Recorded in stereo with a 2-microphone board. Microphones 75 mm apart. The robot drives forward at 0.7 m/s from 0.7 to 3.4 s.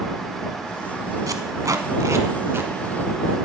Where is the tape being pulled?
50° right (ahead or behind), 1.1 m; by 2.7 s 35° right (ahead or behind), 1.6 m.